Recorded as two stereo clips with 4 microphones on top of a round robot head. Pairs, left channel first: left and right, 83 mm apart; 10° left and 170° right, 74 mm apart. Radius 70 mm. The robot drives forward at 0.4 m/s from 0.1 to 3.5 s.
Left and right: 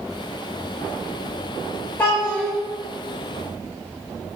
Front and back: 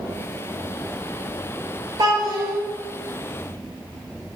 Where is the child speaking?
165° left, 1.5 m.